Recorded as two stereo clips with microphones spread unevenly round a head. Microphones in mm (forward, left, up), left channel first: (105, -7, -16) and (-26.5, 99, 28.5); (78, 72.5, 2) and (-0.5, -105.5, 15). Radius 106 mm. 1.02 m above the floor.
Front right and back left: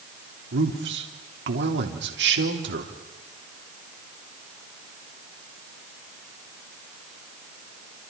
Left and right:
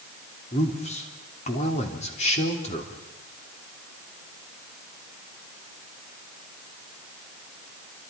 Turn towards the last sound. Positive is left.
turn(degrees=125)